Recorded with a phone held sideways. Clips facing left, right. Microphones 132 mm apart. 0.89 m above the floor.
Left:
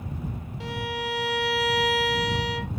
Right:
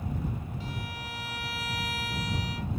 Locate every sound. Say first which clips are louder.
0.6 s a violin: left 8 dB; 85° left